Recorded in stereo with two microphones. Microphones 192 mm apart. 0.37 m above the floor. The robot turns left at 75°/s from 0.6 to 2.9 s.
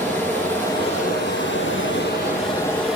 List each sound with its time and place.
0.0 s running water: 170° left, 6.5 m; by 3.0 s straight ahead, 6.5 m